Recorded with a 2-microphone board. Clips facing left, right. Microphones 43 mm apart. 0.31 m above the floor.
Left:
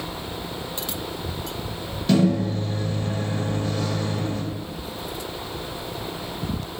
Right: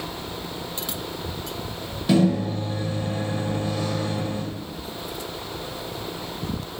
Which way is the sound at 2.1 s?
10° right (ahead or behind).